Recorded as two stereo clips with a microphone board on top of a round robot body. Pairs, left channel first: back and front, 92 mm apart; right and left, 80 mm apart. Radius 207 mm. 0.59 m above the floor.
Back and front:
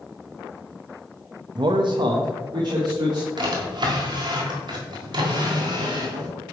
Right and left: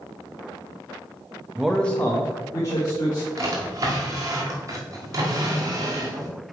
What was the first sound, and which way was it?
A man speaking, 15° left.